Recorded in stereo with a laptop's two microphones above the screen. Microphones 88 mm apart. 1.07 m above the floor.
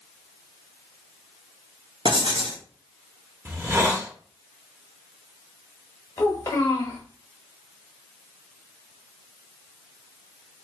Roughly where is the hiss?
Right.